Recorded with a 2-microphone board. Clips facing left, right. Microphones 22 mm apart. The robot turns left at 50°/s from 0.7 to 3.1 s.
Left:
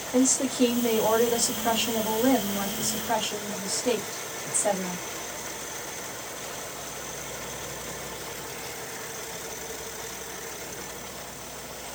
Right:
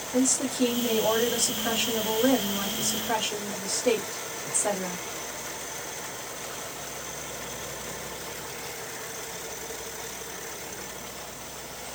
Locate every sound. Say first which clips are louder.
0.1 s a woman speaking: left 2 dB; 80° left, 1.6 m; by 5.0 s 40° right, 1.6 m